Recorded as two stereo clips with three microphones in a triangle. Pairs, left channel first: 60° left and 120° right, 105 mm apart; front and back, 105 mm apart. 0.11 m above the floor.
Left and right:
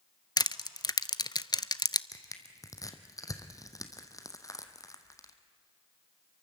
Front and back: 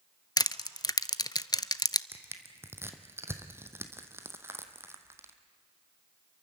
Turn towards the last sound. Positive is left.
turn(degrees=115)